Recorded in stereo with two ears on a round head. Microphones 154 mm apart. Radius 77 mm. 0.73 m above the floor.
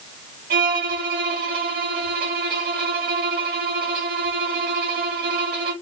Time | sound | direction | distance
0.5 | a violin | 55° right (ahead or behind) | 1.8 m